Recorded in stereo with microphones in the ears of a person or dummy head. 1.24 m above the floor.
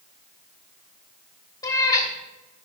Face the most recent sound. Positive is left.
turn(degrees=20)  # may be behind; listen again after turning